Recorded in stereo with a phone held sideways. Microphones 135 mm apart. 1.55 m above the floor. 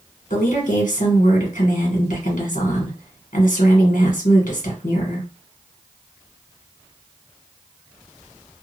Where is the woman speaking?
70° left (ahead or behind), 1.2 m.